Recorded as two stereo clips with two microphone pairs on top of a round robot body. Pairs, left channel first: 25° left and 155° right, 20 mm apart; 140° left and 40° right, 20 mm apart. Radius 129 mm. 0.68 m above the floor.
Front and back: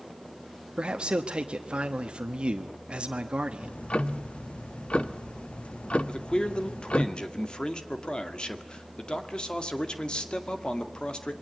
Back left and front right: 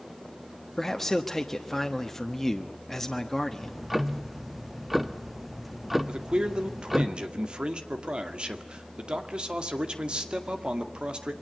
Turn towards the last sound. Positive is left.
turn(degrees=-10)